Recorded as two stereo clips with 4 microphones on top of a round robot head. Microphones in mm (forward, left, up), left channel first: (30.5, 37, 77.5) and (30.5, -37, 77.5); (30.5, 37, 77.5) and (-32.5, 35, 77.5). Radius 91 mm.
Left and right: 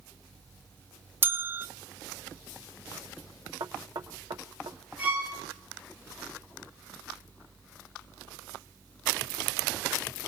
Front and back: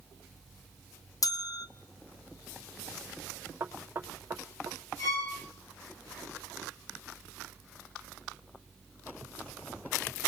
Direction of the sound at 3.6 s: 120° right.